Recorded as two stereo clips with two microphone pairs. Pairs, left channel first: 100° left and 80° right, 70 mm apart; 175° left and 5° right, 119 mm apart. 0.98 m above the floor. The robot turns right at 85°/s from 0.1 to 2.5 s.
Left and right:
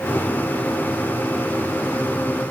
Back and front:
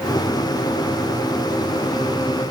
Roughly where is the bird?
I don't hear a bird.